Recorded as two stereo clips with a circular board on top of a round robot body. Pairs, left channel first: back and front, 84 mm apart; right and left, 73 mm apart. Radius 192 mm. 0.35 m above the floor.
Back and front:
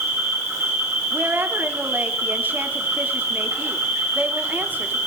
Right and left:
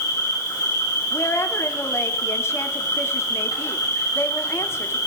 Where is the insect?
60° right, 4 m.